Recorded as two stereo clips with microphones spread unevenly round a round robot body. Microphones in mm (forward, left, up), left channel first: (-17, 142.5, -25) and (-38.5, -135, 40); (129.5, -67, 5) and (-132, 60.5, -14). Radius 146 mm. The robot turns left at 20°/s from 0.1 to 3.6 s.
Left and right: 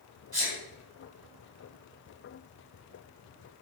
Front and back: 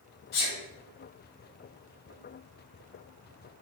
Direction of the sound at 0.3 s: 25° right.